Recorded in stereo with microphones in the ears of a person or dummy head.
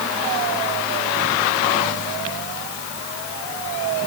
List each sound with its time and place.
Only background noise.